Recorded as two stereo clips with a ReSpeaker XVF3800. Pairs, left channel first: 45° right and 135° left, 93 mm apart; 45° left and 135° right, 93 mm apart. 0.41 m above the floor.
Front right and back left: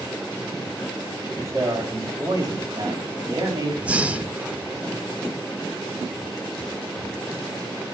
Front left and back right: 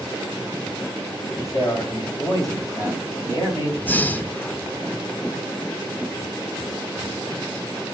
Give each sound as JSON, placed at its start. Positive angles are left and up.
{"t": 1.4, "sound": "a man speaking", "azimuth_deg": 85, "distance_m": 2.0}
{"t": 3.8, "sound": "breathing", "azimuth_deg": 85, "distance_m": 0.5}